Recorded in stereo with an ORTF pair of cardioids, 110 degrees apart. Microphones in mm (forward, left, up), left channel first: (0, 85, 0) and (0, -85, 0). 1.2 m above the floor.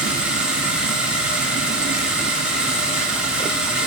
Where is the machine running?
5° right, 1.6 m.